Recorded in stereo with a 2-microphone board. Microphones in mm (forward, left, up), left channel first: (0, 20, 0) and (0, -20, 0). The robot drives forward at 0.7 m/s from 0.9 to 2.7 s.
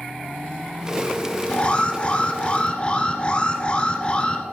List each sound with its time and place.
1.5 s an alarm: 30° left (ahead or behind), 1.3 m